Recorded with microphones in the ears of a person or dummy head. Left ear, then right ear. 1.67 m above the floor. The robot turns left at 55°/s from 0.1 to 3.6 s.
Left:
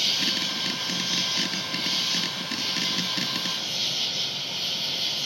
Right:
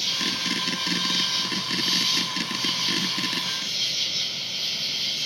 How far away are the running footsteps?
No running footsteps in this recording.